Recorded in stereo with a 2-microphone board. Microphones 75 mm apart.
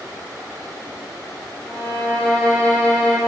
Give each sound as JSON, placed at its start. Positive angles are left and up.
{"t": 1.6, "sound": "a violin", "side_deg": 15, "distance_m": 3.5}